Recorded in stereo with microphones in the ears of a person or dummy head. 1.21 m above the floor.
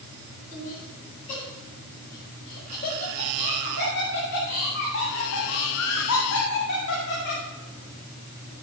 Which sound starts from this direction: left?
Laughter, at 0.5 s.